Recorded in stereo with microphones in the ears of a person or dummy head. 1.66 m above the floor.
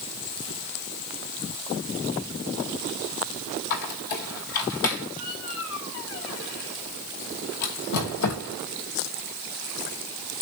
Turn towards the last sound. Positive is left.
turn(degrees=60)  # may be behind; listen again after turning